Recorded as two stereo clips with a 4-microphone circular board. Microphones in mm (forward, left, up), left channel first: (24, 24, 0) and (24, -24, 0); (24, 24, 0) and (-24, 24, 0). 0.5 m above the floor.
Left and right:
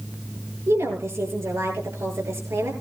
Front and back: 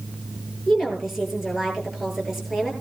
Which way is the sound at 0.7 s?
95° right.